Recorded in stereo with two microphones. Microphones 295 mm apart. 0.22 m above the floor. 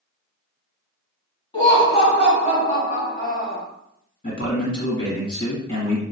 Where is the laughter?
15° left (ahead or behind), 1.5 m; by 3.6 s 30° left (ahead or behind), 1.4 m.